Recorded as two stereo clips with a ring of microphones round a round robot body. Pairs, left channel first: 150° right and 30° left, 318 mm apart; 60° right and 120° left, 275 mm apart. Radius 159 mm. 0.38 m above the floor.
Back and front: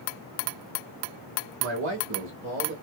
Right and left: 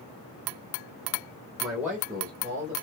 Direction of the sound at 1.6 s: 25° left.